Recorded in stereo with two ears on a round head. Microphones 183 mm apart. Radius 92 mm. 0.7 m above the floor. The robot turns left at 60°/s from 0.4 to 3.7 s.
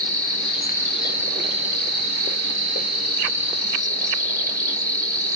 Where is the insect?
35° left, 1.3 m; by 5.4 s 165° right, 1.3 m.